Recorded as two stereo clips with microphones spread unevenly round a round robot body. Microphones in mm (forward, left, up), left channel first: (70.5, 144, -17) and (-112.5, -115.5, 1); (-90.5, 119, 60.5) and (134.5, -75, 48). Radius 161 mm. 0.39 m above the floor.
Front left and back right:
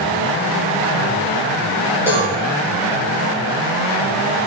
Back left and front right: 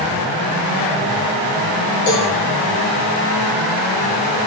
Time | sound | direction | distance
2.1 | a cowbell | 150° left | 5.5 m